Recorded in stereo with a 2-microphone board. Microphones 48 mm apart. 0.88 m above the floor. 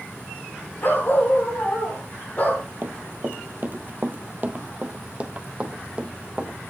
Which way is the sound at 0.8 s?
45° left (ahead or behind).